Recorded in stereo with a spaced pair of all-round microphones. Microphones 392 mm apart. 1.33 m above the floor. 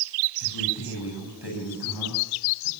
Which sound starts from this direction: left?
A man speaking, at 0.4 s.